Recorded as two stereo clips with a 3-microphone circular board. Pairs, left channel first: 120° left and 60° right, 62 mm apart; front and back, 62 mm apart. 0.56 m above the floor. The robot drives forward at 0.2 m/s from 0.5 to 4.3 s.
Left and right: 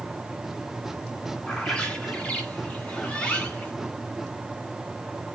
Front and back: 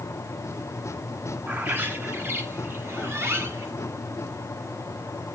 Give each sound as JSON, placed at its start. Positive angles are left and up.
{"t": 1.5, "sound": "a bird", "azimuth_deg": 175, "distance_m": 1.2}